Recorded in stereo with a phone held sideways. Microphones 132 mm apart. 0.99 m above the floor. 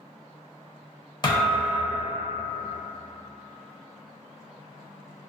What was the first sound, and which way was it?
A thud, 35° left (ahead or behind).